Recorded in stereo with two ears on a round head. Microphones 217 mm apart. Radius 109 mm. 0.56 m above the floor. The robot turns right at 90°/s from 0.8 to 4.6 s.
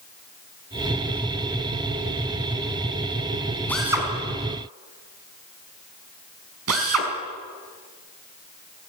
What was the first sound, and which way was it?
A drill, 10° left (ahead or behind).